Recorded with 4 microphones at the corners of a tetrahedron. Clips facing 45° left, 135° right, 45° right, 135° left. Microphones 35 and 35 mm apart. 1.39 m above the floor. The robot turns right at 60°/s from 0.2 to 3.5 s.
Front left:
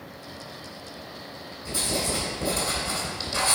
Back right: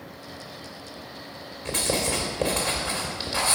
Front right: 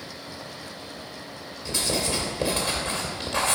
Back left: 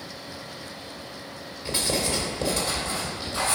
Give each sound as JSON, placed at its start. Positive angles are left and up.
{"t": 1.6, "sound": "writing", "azimuth_deg": -165, "distance_m": 2.5}